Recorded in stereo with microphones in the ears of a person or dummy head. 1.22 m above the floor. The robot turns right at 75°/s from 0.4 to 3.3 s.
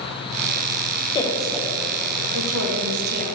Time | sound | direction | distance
1.1 | a woman speaking | 20° left (ahead or behind) | 1.5 m